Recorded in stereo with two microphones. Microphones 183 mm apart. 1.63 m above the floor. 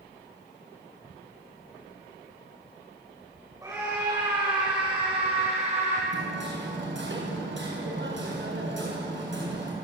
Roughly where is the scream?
Centre.